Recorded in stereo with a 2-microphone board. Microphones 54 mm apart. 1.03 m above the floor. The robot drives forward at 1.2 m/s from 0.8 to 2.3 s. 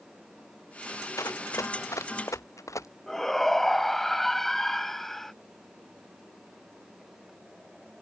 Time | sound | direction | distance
1.2 | running footsteps | 65° left (ahead or behind) | ?
3.1 | a shout | 5° left (ahead or behind) | ?